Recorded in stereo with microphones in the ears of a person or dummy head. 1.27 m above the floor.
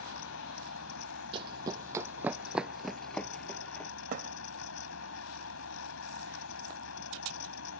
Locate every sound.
0.0 s a fan: 80° left
1.3 s running footsteps: 30° right (ahead or behind); by 3.9 s 10° left (ahead or behind)
4.1 s a thud: 45° right (ahead or behind)